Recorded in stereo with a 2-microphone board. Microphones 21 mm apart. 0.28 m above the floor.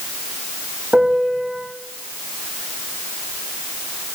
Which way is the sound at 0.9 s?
80° right.